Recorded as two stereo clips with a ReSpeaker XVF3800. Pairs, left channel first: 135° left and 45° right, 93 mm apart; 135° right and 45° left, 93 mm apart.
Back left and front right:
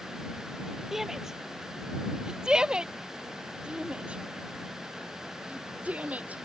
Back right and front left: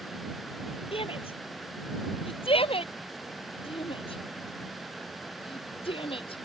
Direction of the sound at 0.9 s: 130° right.